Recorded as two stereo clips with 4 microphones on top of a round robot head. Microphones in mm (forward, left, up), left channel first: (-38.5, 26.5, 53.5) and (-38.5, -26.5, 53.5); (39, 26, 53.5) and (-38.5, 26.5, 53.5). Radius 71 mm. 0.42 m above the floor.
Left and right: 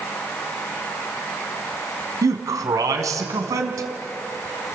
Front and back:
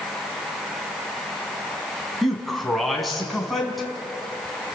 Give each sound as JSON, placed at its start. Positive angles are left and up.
{"t": 2.2, "sound": "a man speaking", "azimuth_deg": -90, "distance_m": 4.0}